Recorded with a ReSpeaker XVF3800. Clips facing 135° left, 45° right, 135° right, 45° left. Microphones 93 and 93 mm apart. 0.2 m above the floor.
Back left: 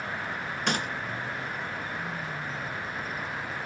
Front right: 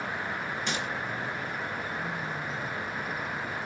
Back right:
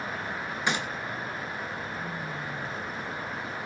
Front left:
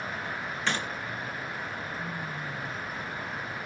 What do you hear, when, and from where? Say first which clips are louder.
0.7 s a gunshot: back left 6 dB, back right 2 dB; 150° left, 3 m